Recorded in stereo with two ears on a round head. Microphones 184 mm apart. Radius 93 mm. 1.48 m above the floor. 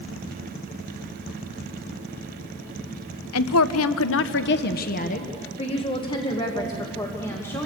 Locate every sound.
3.3 s a woman speaking: 75° left (ahead or behind), 0.8 m; by 7.7 s 10° left (ahead or behind), 2 m